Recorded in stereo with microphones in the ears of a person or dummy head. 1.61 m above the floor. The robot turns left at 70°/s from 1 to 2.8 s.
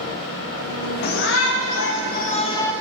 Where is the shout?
130° left, 1.6 m; by 2.7 s 10° left, 1.6 m.